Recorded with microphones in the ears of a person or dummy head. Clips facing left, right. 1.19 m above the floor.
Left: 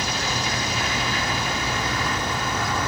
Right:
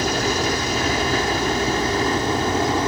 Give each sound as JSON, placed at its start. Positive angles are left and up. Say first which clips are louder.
{"t": 0.0, "sound": "a helicopter", "louder": "right 7 dB", "side_deg": -40}